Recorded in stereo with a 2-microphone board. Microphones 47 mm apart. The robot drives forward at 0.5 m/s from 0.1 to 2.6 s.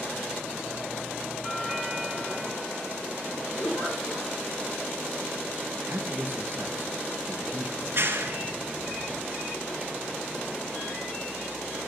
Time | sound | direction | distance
1.4 | a doorbell | 5° left (ahead or behind) | 2.5 m
3.6 | a giggle | 60° left (ahead or behind) | 7 m
5.9 | a man speaking | 45° right (ahead or behind) | 2 m
7.8 | a clap | 50° right (ahead or behind) | 2.5 m